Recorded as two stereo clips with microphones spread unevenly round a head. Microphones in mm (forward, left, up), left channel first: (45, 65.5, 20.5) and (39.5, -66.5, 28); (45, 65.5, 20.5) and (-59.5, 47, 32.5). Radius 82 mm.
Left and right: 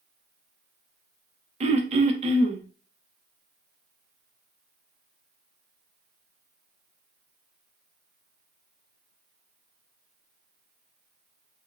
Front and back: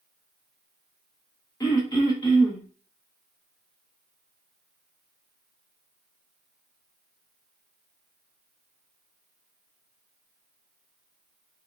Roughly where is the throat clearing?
Ahead right.